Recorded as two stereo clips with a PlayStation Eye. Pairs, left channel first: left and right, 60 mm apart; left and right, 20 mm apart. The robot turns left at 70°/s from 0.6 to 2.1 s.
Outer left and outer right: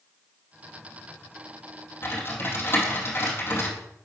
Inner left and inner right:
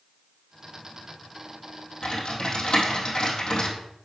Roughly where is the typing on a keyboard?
Left.